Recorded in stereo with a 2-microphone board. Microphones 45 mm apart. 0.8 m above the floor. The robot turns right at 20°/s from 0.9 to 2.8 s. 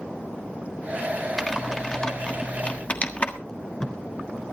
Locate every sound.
1.4 s typing on a keyboard: 5° left (ahead or behind), 1.4 m; by 3.4 s 30° left (ahead or behind), 1.4 m
3.5 s tape being pulled: 15° left (ahead or behind), 1.6 m